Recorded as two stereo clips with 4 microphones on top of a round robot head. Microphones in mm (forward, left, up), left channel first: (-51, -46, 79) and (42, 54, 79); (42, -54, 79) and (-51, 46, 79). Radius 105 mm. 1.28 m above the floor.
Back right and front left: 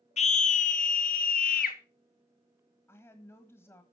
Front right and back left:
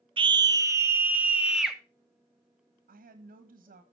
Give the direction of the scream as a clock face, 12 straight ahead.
6 o'clock.